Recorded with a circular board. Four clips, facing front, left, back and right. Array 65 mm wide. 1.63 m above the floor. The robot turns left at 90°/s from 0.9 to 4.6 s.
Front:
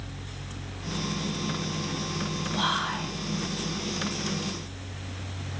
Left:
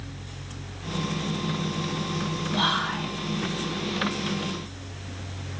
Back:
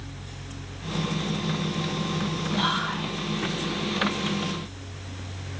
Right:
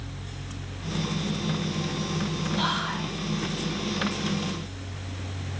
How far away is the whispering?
About 3.5 m.